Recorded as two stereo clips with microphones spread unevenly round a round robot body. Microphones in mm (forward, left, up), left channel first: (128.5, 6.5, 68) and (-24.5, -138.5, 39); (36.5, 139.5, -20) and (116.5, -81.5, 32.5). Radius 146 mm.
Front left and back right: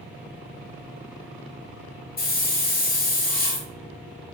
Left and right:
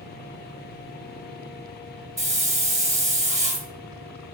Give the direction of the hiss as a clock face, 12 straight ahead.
12 o'clock.